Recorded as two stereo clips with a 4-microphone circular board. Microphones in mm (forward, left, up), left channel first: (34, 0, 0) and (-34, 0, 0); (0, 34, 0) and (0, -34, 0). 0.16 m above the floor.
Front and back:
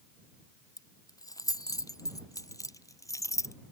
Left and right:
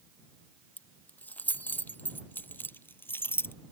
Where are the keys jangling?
25° left; by 3.5 s 35° left.